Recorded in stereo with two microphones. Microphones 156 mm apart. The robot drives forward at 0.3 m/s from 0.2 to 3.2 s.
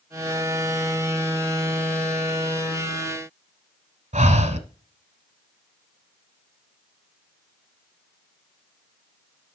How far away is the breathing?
About 1.0 m.